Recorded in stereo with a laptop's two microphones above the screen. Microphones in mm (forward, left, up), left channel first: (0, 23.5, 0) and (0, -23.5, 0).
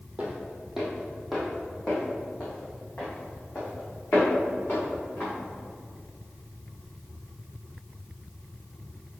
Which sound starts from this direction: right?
Footsteps, at 0.2 s.